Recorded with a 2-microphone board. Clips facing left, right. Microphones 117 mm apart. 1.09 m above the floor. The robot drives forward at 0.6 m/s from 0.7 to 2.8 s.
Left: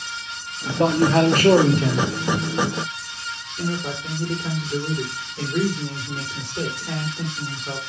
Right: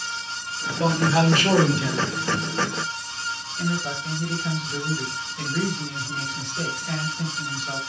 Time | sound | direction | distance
0.7 | a man speaking | 55° left (ahead or behind) | 1.5 m
3.6 | a man speaking | 35° left (ahead or behind) | 3.5 m